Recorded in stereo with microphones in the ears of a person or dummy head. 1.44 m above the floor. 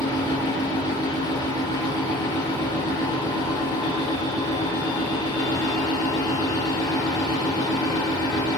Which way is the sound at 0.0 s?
30° left (ahead or behind).